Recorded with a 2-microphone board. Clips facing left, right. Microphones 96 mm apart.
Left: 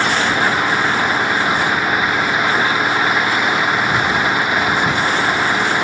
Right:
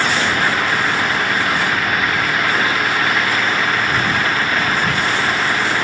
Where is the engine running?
15° left (ahead or behind).